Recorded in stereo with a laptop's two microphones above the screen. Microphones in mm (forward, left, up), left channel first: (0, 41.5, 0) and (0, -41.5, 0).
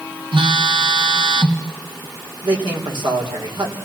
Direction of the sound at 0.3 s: 80° right.